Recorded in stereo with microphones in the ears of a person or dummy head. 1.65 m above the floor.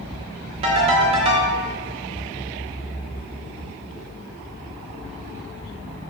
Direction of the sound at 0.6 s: 35° right (ahead or behind).